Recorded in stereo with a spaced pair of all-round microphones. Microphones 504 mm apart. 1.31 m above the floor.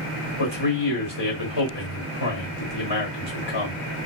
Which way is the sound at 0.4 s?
55° left (ahead or behind).